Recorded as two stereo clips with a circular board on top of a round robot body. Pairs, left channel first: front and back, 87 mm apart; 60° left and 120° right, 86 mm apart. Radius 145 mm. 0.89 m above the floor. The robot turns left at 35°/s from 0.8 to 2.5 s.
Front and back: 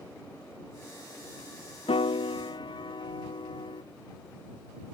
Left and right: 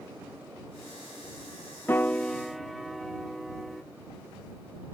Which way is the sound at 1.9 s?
10° right.